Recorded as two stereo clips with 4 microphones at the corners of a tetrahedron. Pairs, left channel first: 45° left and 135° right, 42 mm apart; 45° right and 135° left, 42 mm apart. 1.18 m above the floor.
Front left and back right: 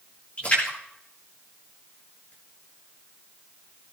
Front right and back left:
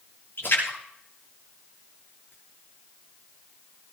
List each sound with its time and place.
0.4 s a splash: 15° right, 8 m